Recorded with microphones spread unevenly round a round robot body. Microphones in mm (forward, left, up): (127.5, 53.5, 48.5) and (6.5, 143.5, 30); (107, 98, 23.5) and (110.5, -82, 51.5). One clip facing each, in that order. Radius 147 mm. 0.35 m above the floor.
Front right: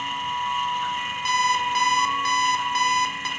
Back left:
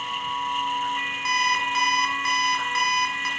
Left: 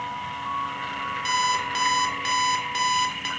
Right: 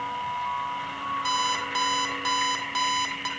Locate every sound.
1.2 s an alarm clock: 25° left, 3 m